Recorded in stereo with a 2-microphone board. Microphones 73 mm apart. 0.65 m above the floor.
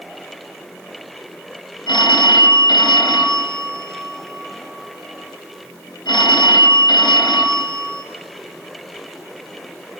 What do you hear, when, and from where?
1.9 s a phone ringing: 70° left (ahead or behind), 2.5 m